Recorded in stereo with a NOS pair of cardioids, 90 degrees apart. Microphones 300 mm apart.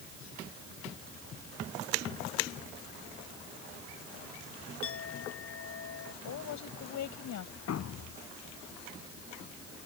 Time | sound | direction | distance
4.8 | a clink | 50° left | ?
6.2 | a woman speaking | 70° left | ?
7.7 | a thud | 60° left | ?